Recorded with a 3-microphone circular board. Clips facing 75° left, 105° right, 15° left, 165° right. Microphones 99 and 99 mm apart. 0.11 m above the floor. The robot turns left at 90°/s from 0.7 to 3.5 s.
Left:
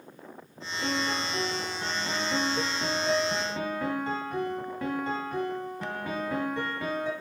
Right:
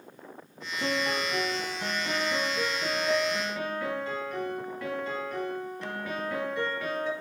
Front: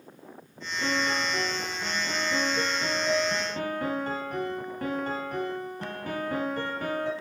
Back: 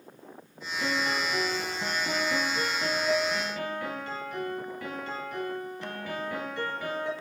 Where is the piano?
90° right, 1.1 m; by 7.1 s 30° left, 1.1 m.